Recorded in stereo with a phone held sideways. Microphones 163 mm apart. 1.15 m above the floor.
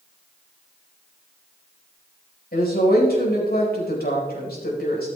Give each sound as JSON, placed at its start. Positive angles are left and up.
{"t": 2.5, "sound": "a woman speaking", "side_deg": 80, "distance_m": 4.5}